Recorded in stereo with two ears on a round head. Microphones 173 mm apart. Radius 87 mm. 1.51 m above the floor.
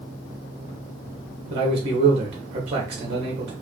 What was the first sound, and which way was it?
A man speaking, 30° right (ahead or behind).